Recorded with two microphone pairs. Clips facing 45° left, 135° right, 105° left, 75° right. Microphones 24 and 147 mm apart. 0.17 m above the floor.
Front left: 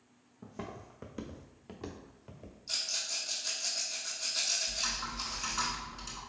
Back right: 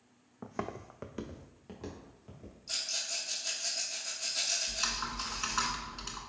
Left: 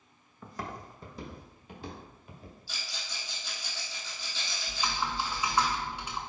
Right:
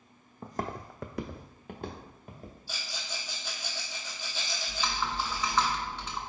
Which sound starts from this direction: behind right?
Footsteps, at 0.4 s.